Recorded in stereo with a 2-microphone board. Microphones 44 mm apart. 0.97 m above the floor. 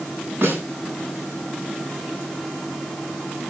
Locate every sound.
0.4 s a snare drum: 50° right (ahead or behind), 9 m